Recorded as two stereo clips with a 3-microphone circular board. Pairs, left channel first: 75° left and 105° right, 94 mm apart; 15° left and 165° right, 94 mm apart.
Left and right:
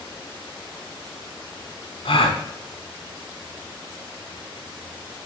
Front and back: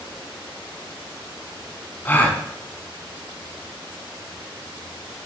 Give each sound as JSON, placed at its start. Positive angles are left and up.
{"t": 2.0, "sound": "a gasp", "azimuth_deg": 85, "distance_m": 1.1}